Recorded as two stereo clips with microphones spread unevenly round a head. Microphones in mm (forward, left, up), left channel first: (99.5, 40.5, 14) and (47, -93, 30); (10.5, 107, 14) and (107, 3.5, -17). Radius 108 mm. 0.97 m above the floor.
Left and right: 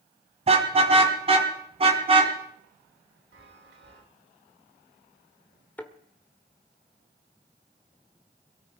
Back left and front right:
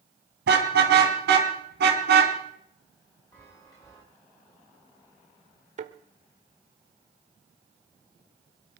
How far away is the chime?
About 2 m.